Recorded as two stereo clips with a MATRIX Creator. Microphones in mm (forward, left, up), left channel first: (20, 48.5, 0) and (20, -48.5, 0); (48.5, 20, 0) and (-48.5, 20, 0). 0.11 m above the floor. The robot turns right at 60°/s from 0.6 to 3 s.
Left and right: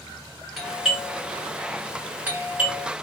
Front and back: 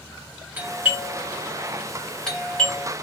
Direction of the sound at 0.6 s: 170° right.